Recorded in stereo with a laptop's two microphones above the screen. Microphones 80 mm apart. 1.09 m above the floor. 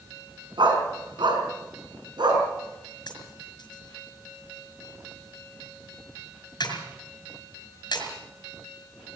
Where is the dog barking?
85° right, 5 m; by 2.4 s 70° right (ahead or behind), 6 m.